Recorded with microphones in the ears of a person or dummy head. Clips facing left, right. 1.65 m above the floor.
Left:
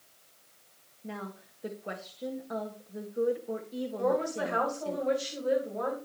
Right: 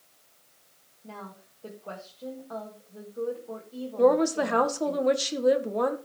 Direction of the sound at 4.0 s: 85° right.